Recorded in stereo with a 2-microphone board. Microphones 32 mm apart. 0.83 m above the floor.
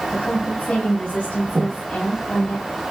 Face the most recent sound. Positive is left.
turn(degrees=-50)  # may be behind; listen again after turning